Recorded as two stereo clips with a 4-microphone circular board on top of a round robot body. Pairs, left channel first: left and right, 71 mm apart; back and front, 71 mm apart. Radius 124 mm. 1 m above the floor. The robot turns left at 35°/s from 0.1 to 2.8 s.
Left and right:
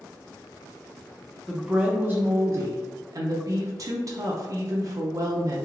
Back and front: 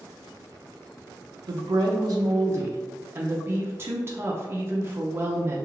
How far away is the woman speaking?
About 0.5 m.